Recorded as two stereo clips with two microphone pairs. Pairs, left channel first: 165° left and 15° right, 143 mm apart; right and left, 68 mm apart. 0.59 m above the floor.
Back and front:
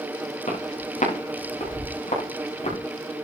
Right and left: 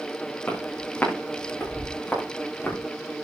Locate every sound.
0.5 s footsteps: 160° right, 7.5 m; by 2.8 s 155° right, 8.5 m